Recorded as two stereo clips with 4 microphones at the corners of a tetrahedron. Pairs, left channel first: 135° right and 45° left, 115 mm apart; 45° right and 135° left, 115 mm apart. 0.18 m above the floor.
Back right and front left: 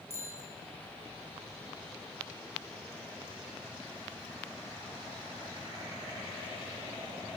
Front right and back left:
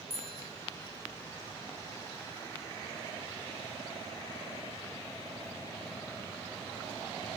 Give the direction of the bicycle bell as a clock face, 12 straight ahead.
2 o'clock.